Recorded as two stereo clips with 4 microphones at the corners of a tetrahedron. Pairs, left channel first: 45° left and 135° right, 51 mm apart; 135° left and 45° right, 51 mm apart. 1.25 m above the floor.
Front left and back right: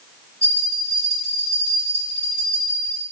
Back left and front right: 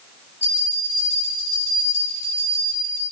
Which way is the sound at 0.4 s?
20° right.